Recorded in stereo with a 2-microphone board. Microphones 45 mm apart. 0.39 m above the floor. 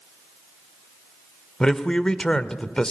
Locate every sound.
1.6 s a man speaking: 15° left (ahead or behind), 1.0 m